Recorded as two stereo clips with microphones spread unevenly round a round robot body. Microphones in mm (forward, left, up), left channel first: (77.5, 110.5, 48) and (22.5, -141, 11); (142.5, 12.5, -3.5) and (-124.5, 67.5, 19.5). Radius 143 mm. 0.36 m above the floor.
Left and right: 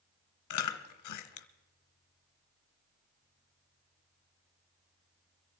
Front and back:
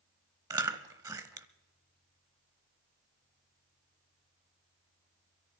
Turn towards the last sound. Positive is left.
turn(degrees=90)